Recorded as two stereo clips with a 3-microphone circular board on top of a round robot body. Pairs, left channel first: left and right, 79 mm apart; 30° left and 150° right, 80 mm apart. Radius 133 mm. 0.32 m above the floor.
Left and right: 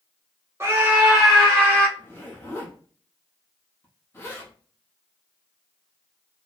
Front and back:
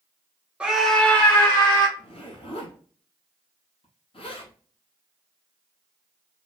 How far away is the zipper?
About 1.1 m.